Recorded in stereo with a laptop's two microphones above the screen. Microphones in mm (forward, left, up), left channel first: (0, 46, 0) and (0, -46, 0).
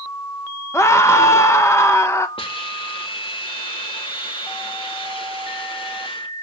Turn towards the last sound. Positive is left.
turn(degrees=80)